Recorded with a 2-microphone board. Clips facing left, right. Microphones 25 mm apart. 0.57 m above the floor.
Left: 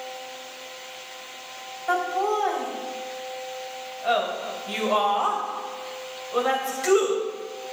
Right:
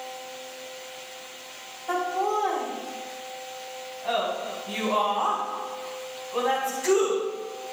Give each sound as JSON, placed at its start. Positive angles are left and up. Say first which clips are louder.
{"t": 1.9, "sound": "laughter", "louder": "left 2 dB", "side_deg": 65, "distance_m": 3.5}